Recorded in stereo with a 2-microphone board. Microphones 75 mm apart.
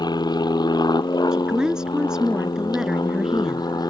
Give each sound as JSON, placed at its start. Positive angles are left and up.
{"t": 0.0, "sound": "an aircraft", "side_deg": 70}
{"t": 1.3, "sound": "a woman speaking", "side_deg": -10}